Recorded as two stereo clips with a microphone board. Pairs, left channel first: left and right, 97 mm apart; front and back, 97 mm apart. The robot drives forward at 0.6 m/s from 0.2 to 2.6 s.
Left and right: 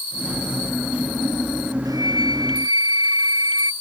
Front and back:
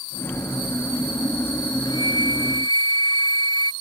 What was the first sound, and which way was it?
A flute, 40° right.